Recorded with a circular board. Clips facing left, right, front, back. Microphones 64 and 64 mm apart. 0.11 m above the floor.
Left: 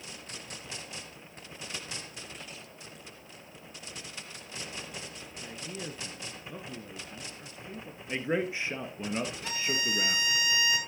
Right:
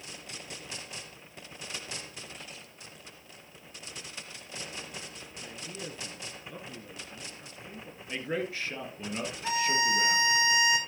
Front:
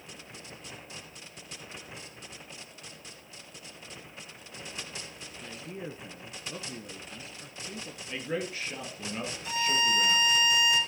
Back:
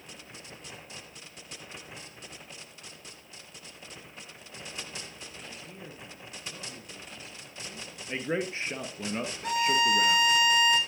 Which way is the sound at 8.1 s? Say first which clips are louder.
Left 3 dB, back 3 dB; 145° left.